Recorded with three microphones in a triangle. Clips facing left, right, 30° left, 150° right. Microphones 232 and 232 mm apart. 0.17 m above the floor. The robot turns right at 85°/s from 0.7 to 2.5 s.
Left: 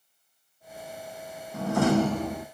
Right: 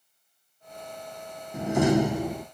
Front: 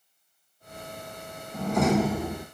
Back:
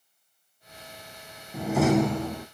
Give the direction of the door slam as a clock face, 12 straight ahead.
3 o'clock.